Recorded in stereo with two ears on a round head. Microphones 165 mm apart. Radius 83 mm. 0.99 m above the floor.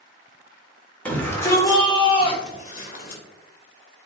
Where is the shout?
10° left (ahead or behind), 3.5 m; by 3.2 s 50° left (ahead or behind), 3 m.